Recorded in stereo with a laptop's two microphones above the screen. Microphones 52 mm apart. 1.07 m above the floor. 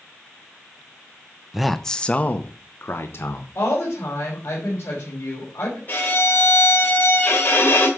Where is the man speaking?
5° right (ahead or behind), 0.6 m; by 3.5 s 60° left (ahead or behind), 1.3 m.